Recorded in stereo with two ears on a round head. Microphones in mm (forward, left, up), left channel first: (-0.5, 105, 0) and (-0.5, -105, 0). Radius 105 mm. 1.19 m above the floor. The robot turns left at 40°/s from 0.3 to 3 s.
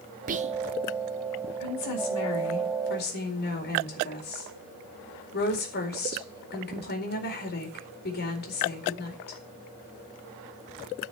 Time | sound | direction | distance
0.3 | whispering | 35° right (ahead or behind) | 1.0 m
1.6 | a woman speaking | 100° left | 4.5 m